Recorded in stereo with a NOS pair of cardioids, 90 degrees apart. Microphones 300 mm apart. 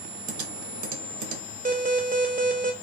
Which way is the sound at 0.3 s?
70° right.